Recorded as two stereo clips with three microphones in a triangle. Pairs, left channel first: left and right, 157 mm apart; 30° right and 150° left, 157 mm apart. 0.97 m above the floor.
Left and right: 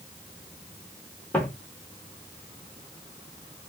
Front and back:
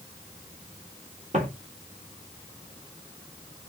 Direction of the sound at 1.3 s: 165° left.